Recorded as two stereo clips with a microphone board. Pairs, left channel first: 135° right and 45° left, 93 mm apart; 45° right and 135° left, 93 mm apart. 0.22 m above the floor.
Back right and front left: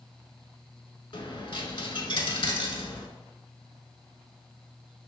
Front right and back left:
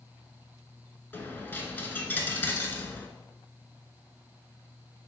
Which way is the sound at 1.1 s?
115° right.